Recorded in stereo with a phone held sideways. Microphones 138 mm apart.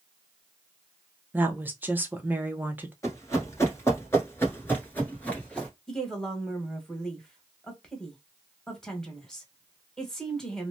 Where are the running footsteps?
25° left (ahead or behind), 1.4 m; by 5.7 s 10° left (ahead or behind), 1.5 m.